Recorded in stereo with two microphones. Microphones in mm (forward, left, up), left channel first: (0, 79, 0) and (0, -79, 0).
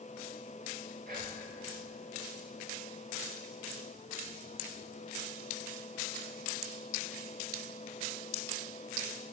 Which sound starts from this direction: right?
Whispering, at 1.1 s.